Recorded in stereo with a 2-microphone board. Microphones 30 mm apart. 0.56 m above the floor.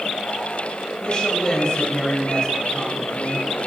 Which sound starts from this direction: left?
A woman speaking, at 1.0 s.